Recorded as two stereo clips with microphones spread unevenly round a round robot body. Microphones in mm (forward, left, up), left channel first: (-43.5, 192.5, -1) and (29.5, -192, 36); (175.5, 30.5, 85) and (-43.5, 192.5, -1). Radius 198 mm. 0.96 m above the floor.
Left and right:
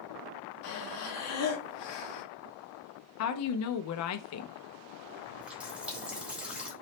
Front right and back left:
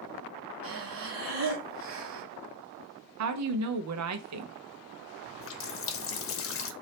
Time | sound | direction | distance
0.6 | breathing | 145° left | 1.1 m
3.2 | a woman speaking | 150° left | 0.6 m
5.3 | a running tap | 10° left | 0.8 m